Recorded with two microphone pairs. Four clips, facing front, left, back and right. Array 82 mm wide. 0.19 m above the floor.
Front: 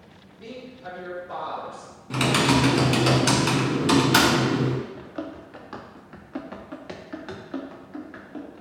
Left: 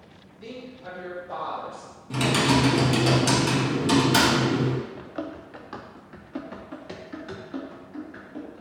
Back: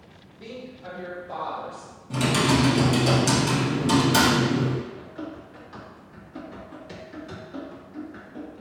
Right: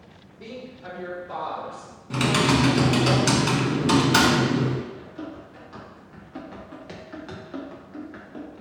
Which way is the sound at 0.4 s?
90° right.